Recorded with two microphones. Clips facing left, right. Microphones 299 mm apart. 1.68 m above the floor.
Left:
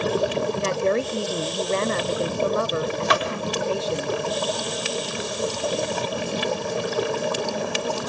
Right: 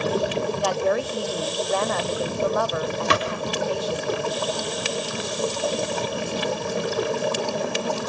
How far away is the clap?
About 4 m.